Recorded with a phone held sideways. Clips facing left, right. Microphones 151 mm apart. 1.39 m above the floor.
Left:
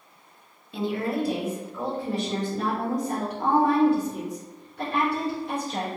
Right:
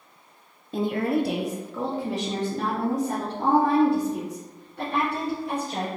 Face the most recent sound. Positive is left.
turn(degrees=-70)  # may be behind; listen again after turning